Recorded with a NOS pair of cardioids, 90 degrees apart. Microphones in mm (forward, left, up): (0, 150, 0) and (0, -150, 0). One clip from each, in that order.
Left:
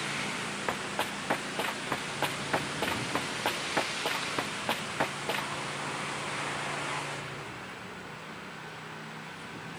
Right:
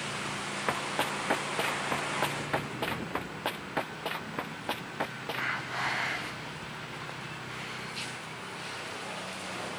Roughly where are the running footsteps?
Ahead.